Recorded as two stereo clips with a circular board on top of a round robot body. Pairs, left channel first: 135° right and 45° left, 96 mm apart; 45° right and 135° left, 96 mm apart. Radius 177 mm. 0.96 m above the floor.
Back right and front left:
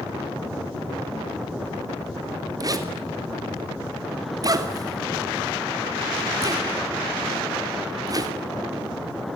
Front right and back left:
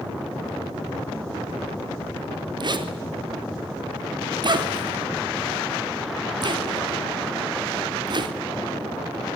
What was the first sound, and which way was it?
A zipper, 95° left.